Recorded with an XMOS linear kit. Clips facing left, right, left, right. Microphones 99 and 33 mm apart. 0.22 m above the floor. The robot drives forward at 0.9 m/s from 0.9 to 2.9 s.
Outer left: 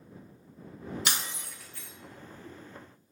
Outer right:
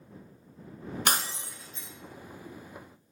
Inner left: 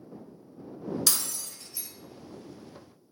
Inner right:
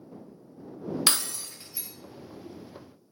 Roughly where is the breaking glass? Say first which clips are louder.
Outer right 5 dB, inner right 4 dB; right.